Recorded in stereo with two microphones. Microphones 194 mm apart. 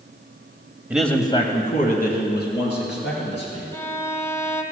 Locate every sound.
0.9 s a man speaking: 10° right (ahead or behind), 0.9 m; by 3.6 s 65° left (ahead or behind), 4 m
3.7 s a violin: 15° left (ahead or behind), 0.8 m